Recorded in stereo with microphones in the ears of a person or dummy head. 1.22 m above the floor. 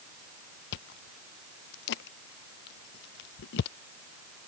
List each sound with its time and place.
0.7 s chewing: 65° left (ahead or behind)